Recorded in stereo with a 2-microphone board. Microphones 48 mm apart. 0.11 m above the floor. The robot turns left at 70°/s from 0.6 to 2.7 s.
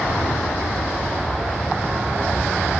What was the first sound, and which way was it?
An aircraft, 60° left.